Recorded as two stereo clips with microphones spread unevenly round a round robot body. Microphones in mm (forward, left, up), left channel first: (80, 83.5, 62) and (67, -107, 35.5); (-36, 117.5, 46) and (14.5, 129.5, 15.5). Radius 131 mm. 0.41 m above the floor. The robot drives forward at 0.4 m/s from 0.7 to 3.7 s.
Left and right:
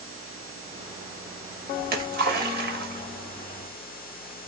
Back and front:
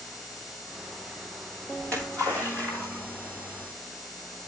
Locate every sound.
1.8 s a splash: 75° right, 1.9 m; by 3.7 s 105° right, 1.9 m